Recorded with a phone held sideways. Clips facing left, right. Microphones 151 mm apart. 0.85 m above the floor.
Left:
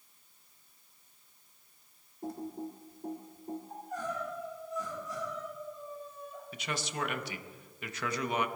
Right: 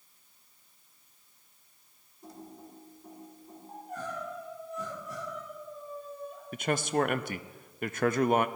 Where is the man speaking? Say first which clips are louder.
Right 10 dB; 50° right (ahead or behind), 0.6 m.